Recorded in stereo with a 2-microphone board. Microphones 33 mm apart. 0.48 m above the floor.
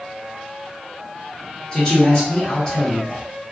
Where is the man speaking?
20° left (ahead or behind), 1.2 m.